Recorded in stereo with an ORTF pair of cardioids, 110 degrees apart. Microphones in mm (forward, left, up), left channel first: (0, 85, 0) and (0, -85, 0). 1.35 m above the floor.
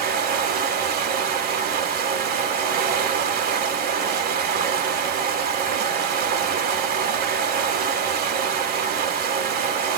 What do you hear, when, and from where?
0.0 s running water: 60° right, 1.9 m